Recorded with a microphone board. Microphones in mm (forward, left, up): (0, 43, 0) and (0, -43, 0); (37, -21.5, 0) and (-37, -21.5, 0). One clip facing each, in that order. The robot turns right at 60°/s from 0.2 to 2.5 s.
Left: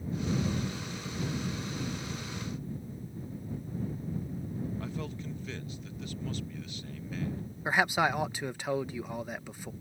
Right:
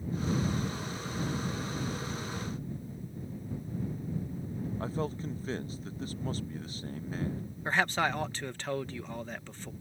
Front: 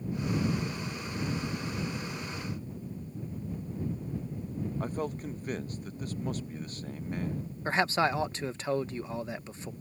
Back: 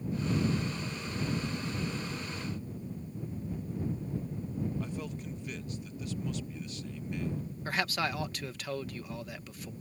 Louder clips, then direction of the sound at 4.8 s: Right 4 dB, front 5 dB; 40° right.